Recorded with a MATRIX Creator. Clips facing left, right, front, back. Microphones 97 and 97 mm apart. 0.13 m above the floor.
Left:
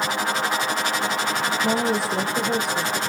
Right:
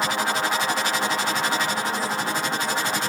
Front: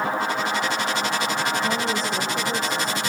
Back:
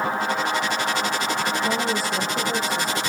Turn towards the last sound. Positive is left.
turn(degrees=100)